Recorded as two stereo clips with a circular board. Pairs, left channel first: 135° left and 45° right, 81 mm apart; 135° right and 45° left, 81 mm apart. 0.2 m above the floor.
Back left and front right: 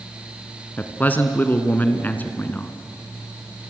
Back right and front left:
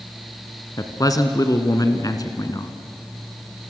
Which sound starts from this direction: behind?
A man speaking, at 0.8 s.